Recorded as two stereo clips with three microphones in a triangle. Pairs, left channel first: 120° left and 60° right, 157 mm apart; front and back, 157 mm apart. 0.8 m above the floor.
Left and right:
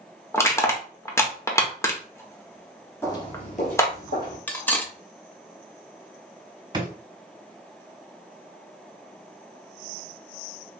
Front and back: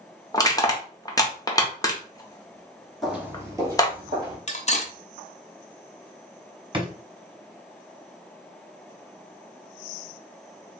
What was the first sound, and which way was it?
Crushing, 55° left.